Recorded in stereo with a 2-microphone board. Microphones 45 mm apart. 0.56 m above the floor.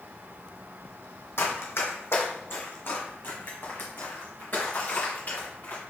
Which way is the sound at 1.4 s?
65° left (ahead or behind).